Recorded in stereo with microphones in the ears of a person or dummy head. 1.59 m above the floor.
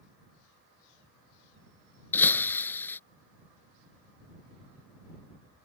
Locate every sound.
2.1 s breaking glass: 10° left (ahead or behind)